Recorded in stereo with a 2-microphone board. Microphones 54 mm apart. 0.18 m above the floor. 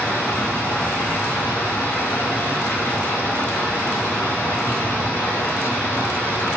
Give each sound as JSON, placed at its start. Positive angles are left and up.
{"t": 0.0, "sound": "running water", "side_deg": 55, "distance_m": 5.5}